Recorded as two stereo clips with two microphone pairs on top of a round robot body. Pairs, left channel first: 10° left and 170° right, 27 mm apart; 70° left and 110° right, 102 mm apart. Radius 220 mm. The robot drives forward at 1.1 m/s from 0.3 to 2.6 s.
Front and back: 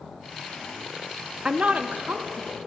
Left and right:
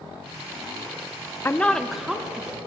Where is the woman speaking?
130° left, 0.6 m; by 2.6 s 170° left, 1.5 m.